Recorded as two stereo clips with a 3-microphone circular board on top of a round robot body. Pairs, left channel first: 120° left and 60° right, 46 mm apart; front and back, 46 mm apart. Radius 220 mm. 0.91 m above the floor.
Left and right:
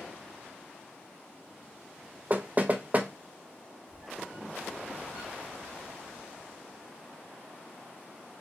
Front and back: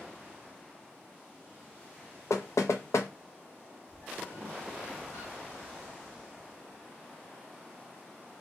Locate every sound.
2.3 s knocking: straight ahead, 0.5 m
3.9 s a squeak: 5° left, 1.3 m